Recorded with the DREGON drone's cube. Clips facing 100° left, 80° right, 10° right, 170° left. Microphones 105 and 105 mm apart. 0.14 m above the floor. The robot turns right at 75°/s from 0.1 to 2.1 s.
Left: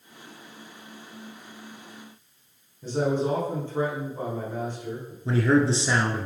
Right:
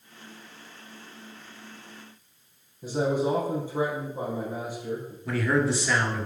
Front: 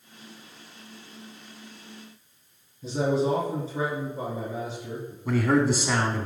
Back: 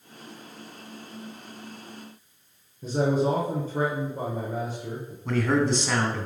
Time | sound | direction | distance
2.8 | a man speaking | 160° right | 2.5 m
5.2 | a man speaking | 65° left | 1.4 m